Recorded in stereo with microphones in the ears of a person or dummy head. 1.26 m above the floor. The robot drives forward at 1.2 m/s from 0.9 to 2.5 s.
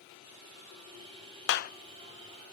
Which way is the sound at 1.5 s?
65° left (ahead or behind).